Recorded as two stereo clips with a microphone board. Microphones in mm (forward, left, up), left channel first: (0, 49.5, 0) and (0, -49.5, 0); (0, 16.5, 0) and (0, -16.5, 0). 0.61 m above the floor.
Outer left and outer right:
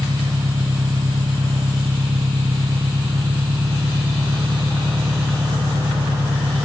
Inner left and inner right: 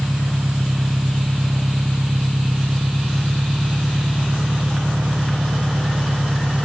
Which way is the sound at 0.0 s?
65° right (ahead or behind).